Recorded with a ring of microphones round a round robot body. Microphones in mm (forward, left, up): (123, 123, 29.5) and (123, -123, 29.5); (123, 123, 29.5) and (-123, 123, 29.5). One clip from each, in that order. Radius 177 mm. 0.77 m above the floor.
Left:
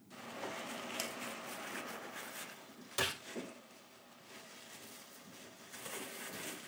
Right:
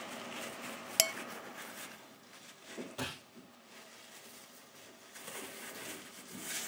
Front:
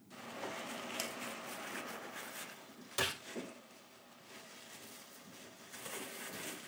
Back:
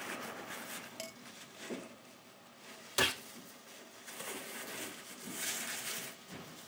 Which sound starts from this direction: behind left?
A gunshot, at 3.0 s.